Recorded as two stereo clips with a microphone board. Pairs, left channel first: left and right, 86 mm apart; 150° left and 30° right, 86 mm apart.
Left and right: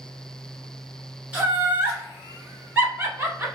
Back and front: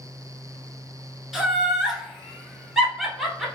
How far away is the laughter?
About 1.1 m.